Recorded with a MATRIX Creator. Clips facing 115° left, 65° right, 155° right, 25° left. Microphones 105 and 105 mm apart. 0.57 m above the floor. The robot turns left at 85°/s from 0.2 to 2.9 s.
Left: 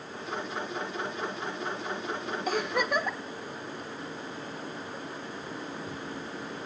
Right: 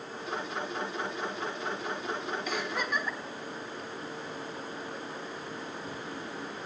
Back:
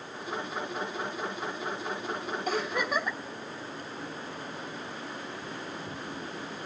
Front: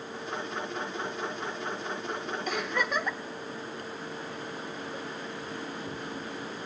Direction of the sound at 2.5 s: 160° left.